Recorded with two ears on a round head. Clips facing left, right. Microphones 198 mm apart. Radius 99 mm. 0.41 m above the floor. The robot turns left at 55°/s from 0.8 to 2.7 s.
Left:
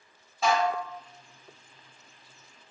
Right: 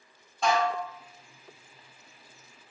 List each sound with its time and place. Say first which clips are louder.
0.4 s dishes clattering: left 1 dB; 5° left (ahead or behind), 0.6 m; by 0.8 s centre (ahead or behind), 0.6 m